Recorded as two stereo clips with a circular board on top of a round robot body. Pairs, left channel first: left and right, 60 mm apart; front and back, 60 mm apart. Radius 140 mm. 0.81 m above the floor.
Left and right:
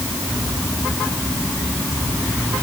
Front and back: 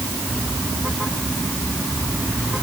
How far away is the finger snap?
No finger snap in this recording.